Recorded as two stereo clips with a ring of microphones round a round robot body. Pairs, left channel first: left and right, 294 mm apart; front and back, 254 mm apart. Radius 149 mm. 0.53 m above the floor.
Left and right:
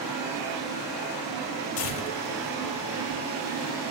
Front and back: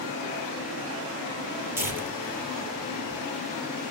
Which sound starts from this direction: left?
Tearing paper, at 1.8 s.